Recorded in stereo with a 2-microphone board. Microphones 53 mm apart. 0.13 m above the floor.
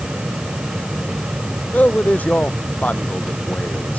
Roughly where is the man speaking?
Left.